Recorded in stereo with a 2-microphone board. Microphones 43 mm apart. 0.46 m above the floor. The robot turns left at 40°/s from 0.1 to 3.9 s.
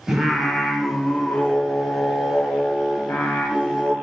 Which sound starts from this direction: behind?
Singing, at 0.1 s.